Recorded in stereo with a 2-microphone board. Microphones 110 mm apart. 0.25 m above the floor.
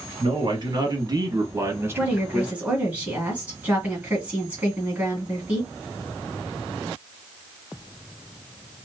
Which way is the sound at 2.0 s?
15° right (ahead or behind).